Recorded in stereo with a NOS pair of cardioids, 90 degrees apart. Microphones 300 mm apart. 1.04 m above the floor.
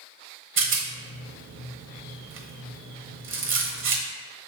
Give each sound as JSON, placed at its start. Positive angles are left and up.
{"t": 0.6, "sound": "a rattle", "azimuth_deg": -40, "distance_m": 0.7}